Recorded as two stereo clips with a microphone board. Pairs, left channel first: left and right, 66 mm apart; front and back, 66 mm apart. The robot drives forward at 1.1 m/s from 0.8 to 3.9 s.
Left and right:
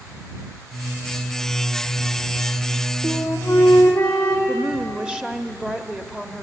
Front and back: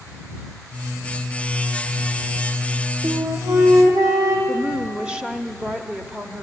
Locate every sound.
3.0 s a flute: 150° left, 3.5 m; by 4.4 s 155° left, 4.5 m
4.5 s a woman speaking: 145° right, 0.9 m